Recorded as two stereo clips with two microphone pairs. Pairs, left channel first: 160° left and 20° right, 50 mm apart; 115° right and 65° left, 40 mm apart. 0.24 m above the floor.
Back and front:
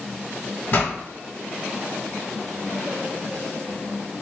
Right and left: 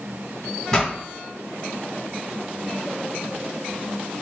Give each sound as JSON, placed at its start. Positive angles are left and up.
{"t": 0.7, "sound": "a pop", "azimuth_deg": 180, "distance_m": 1.6}